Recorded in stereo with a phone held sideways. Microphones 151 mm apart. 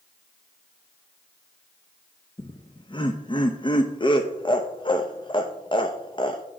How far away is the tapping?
I don't hear tapping.